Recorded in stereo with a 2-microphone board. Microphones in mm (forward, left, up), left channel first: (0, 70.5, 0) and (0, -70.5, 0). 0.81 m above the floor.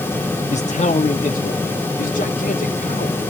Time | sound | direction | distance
0.5 | a man speaking | 50° left (ahead or behind) | 0.8 m